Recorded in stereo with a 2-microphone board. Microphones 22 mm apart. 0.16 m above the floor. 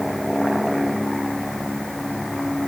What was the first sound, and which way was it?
Only background noise.